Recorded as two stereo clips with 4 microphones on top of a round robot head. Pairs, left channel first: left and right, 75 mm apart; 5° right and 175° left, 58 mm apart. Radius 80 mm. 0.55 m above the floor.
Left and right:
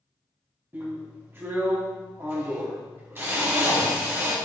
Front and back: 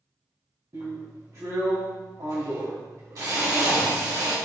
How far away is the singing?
I don't hear singing.